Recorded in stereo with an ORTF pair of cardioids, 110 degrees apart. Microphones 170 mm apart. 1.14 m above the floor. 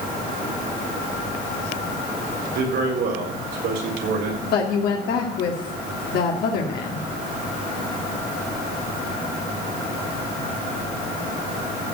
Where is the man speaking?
70° right, 3.5 m.